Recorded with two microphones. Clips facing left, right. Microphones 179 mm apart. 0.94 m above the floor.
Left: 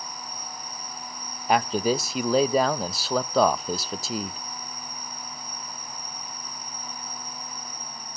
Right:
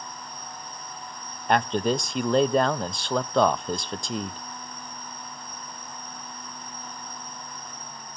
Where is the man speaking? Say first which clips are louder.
Even; 5° left (ahead or behind), 0.6 m.